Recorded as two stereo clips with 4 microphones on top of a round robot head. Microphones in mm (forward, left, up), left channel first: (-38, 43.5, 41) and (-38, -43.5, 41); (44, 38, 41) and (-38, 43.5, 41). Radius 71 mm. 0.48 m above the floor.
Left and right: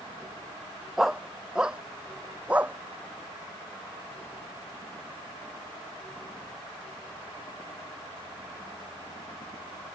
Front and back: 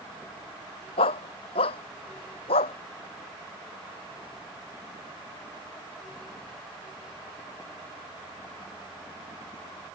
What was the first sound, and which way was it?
A dog barking, 5° right.